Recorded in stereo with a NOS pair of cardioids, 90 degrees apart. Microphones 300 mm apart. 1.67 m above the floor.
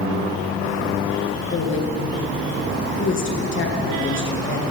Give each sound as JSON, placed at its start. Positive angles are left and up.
{"t": 1.5, "sound": "a woman speaking", "azimuth_deg": 40, "distance_m": 1.6}